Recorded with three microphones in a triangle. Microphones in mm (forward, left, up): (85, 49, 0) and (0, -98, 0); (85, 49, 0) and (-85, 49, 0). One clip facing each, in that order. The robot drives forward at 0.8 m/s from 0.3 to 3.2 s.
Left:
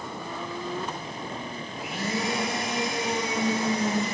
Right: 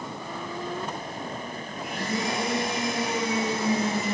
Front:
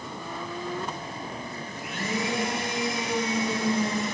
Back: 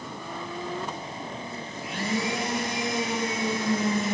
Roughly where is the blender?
Behind left.